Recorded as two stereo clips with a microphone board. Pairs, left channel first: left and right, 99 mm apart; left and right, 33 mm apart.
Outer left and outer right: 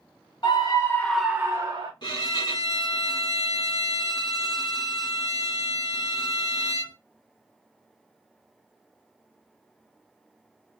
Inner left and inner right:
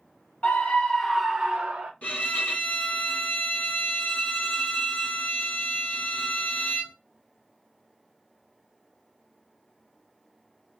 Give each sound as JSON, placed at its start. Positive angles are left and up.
{"t": 0.4, "sound": "a scream", "side_deg": 50, "distance_m": 0.9}
{"t": 2.0, "sound": "a violin", "side_deg": 50, "distance_m": 1.2}